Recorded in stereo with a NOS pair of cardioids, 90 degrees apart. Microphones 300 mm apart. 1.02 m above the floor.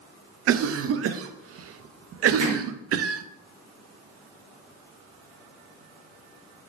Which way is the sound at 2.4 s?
70° right.